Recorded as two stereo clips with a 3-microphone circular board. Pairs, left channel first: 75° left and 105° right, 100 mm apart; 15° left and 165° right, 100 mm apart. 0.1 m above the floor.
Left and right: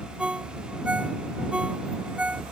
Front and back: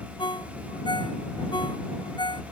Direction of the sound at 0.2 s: 25° right.